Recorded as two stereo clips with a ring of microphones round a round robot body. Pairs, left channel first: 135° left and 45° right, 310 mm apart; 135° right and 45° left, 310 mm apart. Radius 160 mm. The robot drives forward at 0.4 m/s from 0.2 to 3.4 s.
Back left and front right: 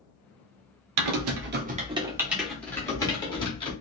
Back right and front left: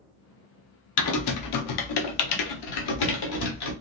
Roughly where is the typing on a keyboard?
Right.